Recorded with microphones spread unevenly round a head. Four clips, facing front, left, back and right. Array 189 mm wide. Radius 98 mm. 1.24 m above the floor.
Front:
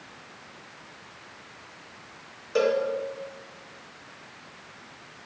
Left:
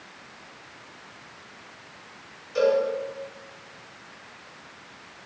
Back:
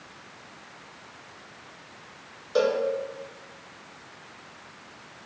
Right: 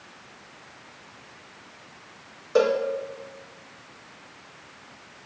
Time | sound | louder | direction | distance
2.5 | a cowbell | even, even | 95° right | 2.0 m